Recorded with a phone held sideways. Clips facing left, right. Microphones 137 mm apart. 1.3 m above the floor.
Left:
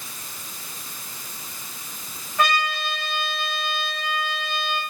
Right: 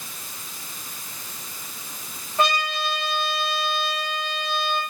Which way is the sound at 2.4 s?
30° right (ahead or behind).